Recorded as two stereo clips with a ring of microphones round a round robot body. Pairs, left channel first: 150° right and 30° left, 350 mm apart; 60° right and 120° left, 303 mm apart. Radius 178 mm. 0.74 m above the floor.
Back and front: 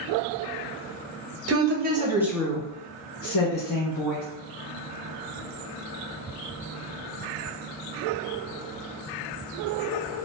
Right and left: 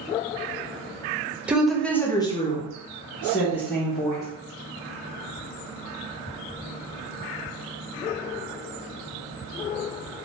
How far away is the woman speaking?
About 0.7 m.